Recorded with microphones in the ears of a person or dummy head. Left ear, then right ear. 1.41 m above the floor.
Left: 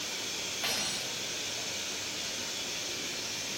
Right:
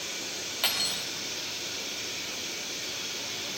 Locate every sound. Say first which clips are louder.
0.6 s cutlery clinking: right 6 dB; 35° right (ahead or behind), 2.5 m